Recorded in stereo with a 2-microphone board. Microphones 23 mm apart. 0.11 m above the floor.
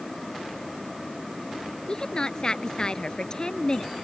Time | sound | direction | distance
1.9 | a woman speaking | 35° left (ahead or behind) | ?